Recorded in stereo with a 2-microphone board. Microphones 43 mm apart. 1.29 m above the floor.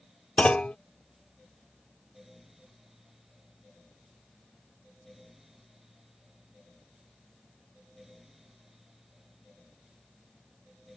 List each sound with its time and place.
0.4 s a clunk: 30° left (ahead or behind)